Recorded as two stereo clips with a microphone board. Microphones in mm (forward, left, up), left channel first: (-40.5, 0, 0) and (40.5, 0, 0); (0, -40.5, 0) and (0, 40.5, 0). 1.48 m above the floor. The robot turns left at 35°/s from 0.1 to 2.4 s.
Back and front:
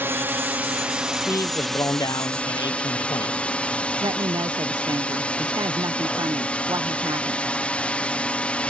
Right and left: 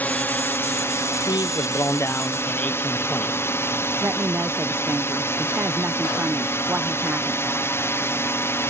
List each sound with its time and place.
0.0 s a drone: 35° right; by 8.7 s 115° right
1.3 s a man speaking: 120° right; by 3.4 s 160° right
4.0 s a woman speaking: 25° left